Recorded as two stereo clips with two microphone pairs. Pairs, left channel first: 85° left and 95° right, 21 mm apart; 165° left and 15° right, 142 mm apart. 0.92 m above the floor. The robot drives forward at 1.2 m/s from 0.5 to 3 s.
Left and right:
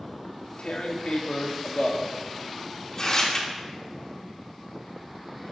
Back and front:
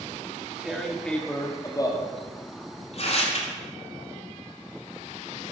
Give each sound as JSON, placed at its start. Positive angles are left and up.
{"t": 0.2, "sound": "tearing paper", "azimuth_deg": 65, "distance_m": 2.5}